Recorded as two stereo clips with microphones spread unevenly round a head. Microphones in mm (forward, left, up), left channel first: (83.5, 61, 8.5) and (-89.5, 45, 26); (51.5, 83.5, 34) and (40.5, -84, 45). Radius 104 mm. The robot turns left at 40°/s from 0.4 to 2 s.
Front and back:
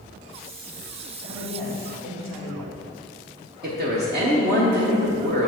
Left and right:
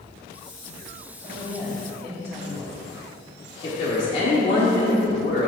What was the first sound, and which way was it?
A man speaking, 125° right.